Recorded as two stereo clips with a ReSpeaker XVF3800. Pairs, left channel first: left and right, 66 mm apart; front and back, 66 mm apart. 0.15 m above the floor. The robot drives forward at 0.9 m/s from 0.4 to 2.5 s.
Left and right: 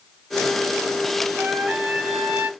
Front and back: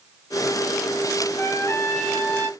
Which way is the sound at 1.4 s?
20° right.